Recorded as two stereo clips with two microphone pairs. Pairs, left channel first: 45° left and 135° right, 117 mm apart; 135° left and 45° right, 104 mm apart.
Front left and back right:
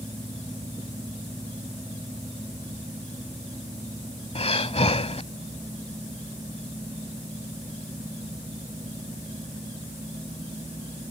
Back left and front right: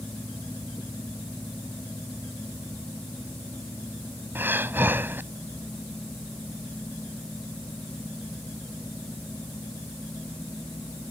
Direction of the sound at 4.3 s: 25° left.